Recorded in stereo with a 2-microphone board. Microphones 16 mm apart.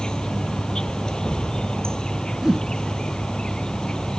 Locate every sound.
0.0 s an insect: 60° left (ahead or behind)
2.4 s a whoosh: 30° right (ahead or behind)